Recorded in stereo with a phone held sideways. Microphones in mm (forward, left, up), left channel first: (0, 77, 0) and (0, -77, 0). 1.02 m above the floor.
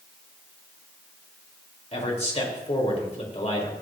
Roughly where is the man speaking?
Left.